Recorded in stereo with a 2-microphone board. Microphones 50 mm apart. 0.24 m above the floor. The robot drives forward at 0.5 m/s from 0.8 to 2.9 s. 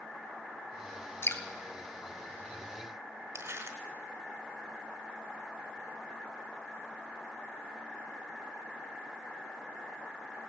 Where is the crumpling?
70° right (ahead or behind), 1.2 m.